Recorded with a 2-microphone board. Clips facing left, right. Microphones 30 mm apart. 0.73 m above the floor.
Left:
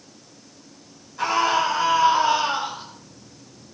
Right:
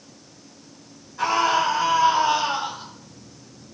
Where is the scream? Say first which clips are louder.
Even; 5° left (ahead or behind), 4.5 m; by 2.9 s 30° left (ahead or behind), 4 m.